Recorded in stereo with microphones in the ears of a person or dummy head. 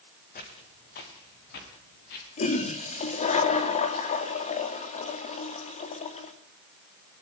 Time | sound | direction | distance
0.3 | footsteps | 45° left (ahead or behind) | 5 m
2.4 | a toilet flushing | 35° left (ahead or behind) | 2.5 m